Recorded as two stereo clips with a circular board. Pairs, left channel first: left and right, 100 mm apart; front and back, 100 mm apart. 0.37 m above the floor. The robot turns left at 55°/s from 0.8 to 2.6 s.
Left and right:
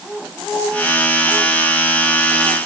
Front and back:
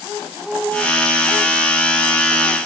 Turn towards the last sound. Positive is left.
No sound to turn to.